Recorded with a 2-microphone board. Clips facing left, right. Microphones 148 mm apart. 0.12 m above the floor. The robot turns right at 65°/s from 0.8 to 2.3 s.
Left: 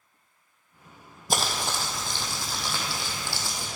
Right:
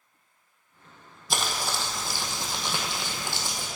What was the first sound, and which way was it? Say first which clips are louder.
Crumpling: left 2 dB; 135° left.